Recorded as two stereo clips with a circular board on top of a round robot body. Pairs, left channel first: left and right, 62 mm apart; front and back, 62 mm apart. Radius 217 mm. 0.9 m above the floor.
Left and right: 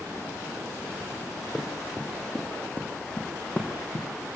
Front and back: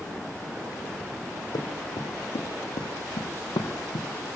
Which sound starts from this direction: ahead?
Running footsteps, at 1.5 s.